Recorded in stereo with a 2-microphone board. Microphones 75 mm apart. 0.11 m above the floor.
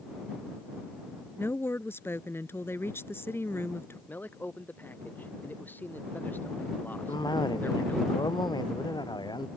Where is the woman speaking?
35° left (ahead or behind).